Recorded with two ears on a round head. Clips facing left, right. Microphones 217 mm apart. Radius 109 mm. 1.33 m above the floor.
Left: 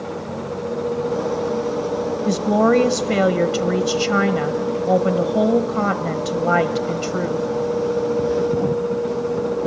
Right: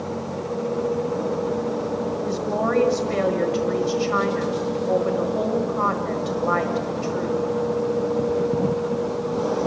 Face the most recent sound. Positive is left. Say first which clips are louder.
# left 11 dB
turn(degrees=60)  # may be behind; listen again after turning